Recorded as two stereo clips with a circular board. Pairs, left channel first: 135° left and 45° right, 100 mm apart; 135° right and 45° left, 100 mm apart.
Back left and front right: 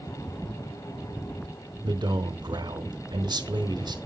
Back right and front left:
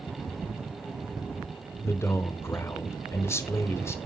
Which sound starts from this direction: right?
A man speaking, at 1.8 s.